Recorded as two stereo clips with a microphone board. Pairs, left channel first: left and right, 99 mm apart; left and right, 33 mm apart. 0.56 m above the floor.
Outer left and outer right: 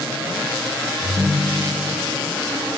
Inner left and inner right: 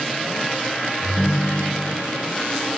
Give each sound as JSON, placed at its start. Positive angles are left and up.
{"t": 1.0, "sound": "a ringtone", "side_deg": -55, "distance_m": 4.0}